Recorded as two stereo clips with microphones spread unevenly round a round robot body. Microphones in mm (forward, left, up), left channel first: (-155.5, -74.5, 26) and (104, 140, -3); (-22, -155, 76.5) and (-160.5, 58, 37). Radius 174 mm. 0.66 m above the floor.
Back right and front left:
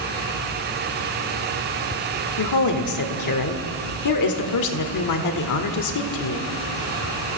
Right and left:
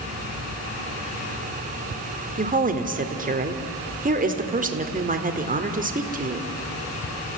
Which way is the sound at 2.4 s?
Straight behind.